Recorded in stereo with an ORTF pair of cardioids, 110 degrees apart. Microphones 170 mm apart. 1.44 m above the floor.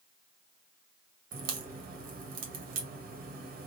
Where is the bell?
I don't hear a bell.